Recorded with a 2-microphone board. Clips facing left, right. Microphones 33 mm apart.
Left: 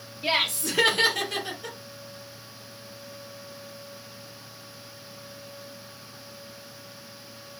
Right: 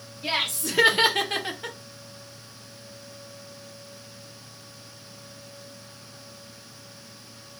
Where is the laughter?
25° left (ahead or behind), 0.9 m; by 1.8 s 55° right (ahead or behind), 1.0 m.